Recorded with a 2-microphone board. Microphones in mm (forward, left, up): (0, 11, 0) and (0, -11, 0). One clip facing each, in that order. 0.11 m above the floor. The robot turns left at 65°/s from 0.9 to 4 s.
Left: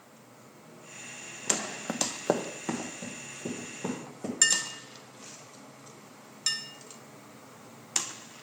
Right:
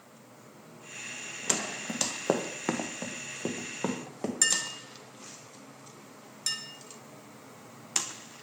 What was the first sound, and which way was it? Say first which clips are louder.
Running footsteps: left 1 dB; 45° left (ahead or behind).